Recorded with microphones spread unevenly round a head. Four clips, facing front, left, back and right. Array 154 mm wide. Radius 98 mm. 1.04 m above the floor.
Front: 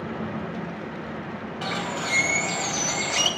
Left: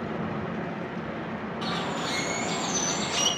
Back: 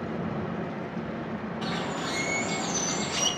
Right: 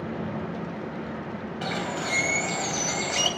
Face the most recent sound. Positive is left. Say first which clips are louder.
# right 1 dB, front 3 dB
turn(degrees=-30)